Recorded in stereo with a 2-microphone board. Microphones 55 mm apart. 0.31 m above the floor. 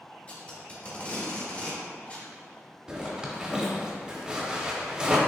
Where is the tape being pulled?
30° left (ahead or behind), 1.2 m.